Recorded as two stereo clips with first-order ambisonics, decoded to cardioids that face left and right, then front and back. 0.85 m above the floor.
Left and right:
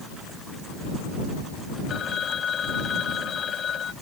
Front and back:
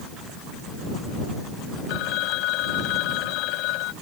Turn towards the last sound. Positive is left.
turn(degrees=25)